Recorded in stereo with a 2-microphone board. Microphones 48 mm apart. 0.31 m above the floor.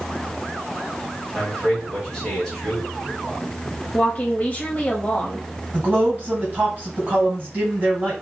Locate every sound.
1.3 s a man speaking: centre (ahead or behind), 2 m
3.9 s a woman speaking: 35° left (ahead or behind), 1.3 m
5.7 s a man speaking: 40° right (ahead or behind), 2 m